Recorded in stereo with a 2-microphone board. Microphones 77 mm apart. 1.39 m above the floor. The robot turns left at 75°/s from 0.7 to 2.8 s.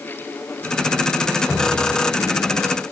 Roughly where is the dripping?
Behind.